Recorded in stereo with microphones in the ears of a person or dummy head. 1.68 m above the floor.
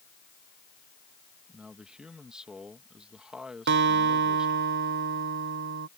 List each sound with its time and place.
1.5 s a man speaking: 5° right (ahead or behind)
3.7 s a guitar: 60° right (ahead or behind)